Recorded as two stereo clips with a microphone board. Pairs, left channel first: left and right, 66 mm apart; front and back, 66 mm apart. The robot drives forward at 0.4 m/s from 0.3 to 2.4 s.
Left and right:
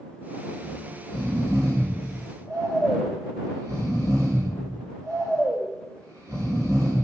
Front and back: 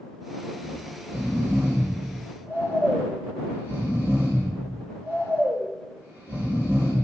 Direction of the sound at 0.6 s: 115° right.